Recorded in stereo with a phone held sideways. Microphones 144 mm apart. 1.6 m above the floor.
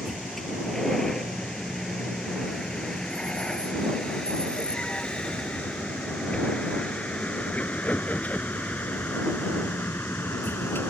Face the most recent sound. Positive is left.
turn(degrees=15)  # may be behind; listen again after turning